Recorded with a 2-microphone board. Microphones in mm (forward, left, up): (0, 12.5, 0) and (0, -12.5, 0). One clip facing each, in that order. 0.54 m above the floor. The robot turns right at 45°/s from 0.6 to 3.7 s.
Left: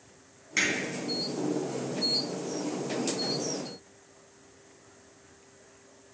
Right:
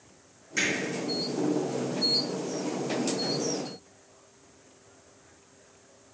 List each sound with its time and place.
0.6 s hammering: 30° left (ahead or behind), 4 m; by 0.7 s 25° left (ahead or behind), 4 m